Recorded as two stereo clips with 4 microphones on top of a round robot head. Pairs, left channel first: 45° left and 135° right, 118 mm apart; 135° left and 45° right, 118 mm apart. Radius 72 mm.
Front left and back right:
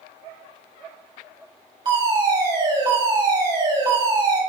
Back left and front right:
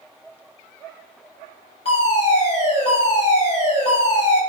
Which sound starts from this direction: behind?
A fire alarm, at 1.9 s.